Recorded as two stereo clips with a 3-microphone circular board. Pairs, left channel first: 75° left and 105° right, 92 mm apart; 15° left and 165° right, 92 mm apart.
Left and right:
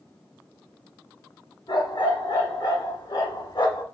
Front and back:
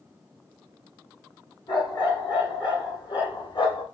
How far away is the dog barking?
About 2.5 m.